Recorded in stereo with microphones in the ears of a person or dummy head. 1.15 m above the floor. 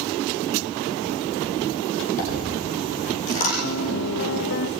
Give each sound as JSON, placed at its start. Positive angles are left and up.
{"t": 2.2, "sound": "a dropped coin", "side_deg": 45, "distance_m": 7.0}
{"t": 3.6, "sound": "a piano", "side_deg": 60, "distance_m": 0.9}